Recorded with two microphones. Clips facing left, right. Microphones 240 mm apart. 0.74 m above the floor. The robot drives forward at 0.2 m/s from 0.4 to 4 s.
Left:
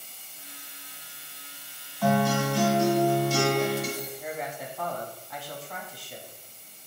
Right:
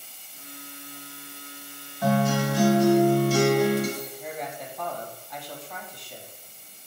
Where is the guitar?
20° right (ahead or behind), 1.3 m; by 3.9 s 15° right (ahead or behind), 1.7 m.